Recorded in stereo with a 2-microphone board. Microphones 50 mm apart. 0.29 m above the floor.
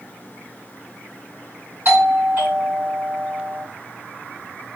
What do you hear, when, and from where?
1.9 s a doorbell: 45° right (ahead or behind), 2.5 m